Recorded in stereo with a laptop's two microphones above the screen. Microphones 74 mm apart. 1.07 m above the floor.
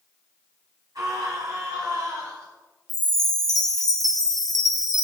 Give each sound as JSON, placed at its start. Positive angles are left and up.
{"t": 0.9, "sound": "a scream", "side_deg": -55, "distance_m": 6.0}
{"t": 2.9, "sound": "a chime", "side_deg": 55, "distance_m": 1.3}